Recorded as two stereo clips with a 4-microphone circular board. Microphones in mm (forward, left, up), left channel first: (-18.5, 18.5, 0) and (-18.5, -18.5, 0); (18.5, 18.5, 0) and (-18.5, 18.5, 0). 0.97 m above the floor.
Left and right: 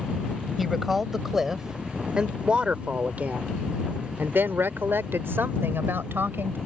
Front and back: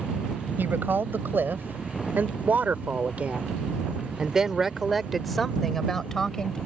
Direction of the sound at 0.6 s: Straight behind.